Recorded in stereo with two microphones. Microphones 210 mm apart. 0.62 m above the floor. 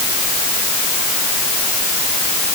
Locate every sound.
Only background noise.